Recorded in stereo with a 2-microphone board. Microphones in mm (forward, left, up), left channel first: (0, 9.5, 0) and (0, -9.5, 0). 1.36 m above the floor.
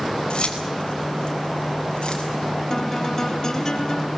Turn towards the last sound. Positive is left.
turn(degrees=35)  # may be behind; listen again after turning